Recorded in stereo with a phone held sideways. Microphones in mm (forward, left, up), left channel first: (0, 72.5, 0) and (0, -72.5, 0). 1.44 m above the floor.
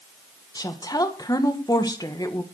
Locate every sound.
0.6 s a woman speaking: 25° left (ahead or behind), 1.6 m